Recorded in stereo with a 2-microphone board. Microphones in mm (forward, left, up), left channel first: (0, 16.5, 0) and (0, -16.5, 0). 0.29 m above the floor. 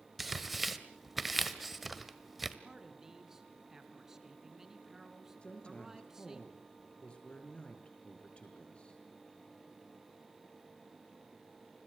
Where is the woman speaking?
30° left (ahead or behind), 5.5 m.